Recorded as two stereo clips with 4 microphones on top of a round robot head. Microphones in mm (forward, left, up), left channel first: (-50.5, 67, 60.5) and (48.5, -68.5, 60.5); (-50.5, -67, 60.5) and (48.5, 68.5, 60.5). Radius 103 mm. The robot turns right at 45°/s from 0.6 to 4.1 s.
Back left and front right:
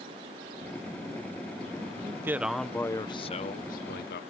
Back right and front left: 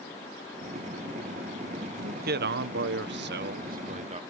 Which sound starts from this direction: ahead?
A man speaking, at 2.0 s.